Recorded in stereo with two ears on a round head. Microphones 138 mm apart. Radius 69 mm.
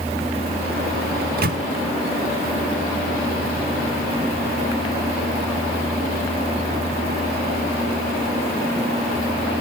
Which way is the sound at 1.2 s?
60° right (ahead or behind).